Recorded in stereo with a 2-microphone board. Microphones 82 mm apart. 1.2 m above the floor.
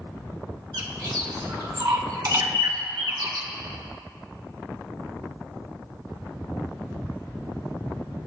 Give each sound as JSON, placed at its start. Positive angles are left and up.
{"t": 0.7, "sound": "a bird", "side_deg": -55, "distance_m": 1.1}